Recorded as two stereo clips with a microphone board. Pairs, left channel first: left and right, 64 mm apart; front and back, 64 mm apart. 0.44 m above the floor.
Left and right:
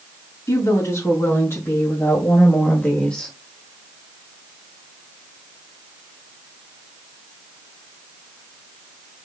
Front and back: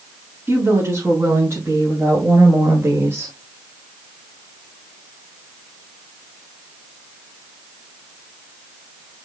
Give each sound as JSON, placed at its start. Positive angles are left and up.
{"t": 0.5, "sound": "a woman speaking", "azimuth_deg": 125, "distance_m": 5.0}